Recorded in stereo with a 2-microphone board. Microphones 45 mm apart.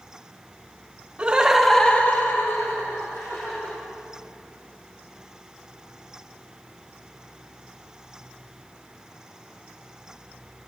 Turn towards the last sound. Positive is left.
turn(degrees=75)  # may be behind; listen again after turning